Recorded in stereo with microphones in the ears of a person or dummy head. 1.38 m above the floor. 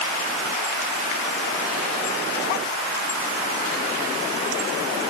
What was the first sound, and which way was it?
Only background noise.